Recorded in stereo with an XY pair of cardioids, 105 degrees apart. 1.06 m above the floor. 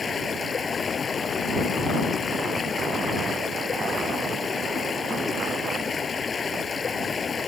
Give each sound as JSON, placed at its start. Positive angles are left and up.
{"t": 0.0, "sound": "running water", "azimuth_deg": 40}